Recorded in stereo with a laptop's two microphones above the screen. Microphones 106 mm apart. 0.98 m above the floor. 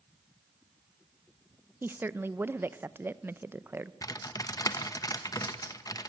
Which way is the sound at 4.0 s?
35° left (ahead or behind).